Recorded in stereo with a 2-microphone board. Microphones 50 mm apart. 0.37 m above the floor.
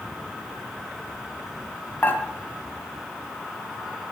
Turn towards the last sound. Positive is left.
turn(degrees=40)  # may be behind; listen again after turning